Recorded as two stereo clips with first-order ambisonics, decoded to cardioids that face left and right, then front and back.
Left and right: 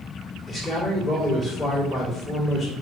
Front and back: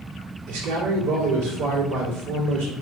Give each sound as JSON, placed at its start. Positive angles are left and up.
{"t": 0.5, "sound": "a man speaking", "azimuth_deg": 175, "distance_m": 2.5}